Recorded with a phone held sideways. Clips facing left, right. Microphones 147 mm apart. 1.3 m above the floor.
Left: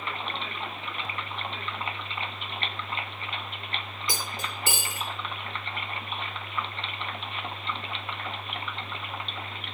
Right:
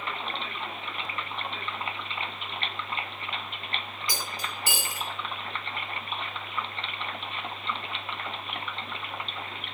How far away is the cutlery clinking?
About 0.8 m.